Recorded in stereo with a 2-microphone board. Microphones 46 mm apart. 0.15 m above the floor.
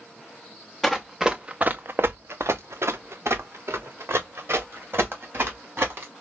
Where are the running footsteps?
5° left (ahead or behind), 0.9 m; by 6.1 s 55° right (ahead or behind), 3 m.